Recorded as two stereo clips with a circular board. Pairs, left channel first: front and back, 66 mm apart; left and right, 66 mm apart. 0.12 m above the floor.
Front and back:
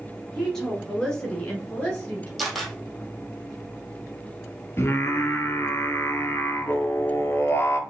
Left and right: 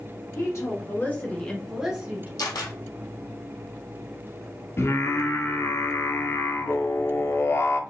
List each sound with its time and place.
0.3 s a woman speaking: 80° left, 1.9 m; by 2.3 s 50° right, 1.4 m
2.4 s a camera shutter: 90° left, 1.3 m
4.8 s singing: 45° left, 0.6 m